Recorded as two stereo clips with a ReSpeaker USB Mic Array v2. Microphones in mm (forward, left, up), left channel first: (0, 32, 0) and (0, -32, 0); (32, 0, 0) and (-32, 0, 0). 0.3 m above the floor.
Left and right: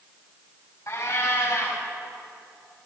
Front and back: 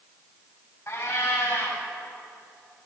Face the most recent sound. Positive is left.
turn(degrees=60)